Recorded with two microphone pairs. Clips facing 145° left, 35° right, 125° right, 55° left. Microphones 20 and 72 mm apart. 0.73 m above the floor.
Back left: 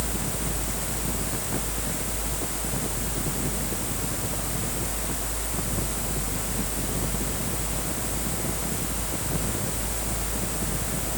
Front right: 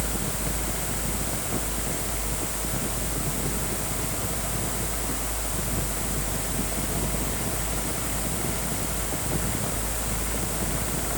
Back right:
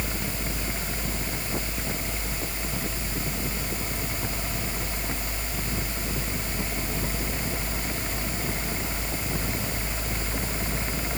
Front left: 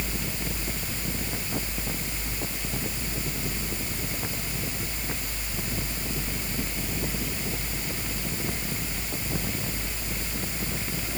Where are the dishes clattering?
No dishes clattering in this recording.